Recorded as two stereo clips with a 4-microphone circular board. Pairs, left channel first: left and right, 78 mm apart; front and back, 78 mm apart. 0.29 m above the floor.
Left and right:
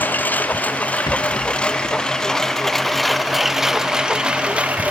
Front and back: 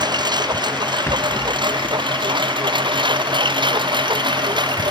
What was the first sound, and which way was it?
A lawn mower, 155° left.